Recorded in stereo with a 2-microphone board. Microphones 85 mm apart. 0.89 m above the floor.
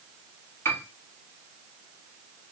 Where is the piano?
30° left (ahead or behind), 1.0 m.